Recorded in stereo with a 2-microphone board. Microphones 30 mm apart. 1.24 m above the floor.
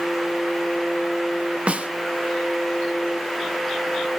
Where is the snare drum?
45° right (ahead or behind), 0.9 m.